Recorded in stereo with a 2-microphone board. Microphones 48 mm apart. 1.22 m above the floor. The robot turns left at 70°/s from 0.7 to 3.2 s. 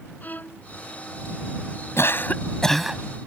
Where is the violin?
35° left (ahead or behind).